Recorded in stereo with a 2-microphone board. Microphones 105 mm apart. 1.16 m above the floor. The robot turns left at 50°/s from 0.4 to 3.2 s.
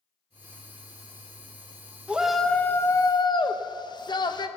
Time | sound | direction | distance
2.1 | a shout | 170° right | 0.9 m